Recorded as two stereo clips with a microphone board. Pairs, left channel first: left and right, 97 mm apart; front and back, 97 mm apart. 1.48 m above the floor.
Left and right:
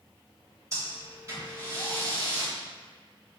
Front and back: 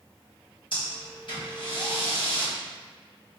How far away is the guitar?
I don't hear a guitar.